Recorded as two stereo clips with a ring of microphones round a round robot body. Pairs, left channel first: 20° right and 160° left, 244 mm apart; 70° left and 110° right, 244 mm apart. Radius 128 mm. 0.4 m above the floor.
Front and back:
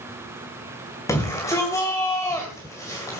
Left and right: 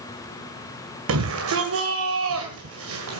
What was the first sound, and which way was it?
A shout, 100° right.